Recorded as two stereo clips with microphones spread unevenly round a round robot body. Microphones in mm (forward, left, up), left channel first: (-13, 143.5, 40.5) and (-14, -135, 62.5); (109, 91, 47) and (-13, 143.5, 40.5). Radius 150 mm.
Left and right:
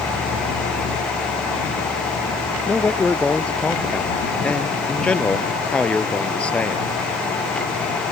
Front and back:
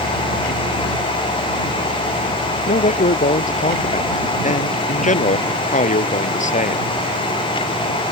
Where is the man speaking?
5° left.